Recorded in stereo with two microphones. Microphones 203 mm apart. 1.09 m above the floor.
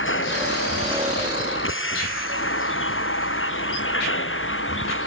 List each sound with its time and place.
0.0 s a vehicle: 80° left